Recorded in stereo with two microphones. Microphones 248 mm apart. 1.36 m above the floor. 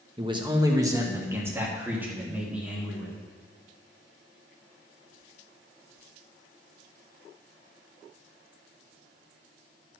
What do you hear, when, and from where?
0.2 s a man speaking: 20° right (ahead or behind), 1.0 m; by 3.1 s 5° right (ahead or behind), 3 m